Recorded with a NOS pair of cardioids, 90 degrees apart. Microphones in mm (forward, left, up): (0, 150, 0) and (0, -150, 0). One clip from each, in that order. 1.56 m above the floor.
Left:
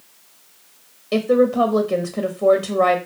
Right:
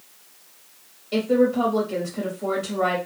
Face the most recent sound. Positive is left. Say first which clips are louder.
# left 4 dB
turn(degrees=60)